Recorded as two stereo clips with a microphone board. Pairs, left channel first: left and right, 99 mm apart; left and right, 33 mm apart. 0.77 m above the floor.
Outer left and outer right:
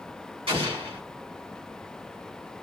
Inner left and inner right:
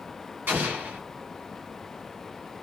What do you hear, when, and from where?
0.5 s an explosion: 65° right (ahead or behind), 1.2 m